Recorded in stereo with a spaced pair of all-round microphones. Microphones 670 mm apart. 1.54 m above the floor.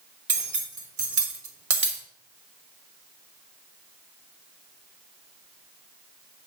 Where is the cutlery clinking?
55° right (ahead or behind), 1.3 m.